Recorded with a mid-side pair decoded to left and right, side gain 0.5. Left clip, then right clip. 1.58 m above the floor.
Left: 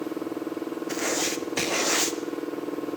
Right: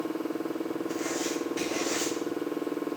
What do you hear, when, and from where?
0.9 s writing: 55° left, 0.8 m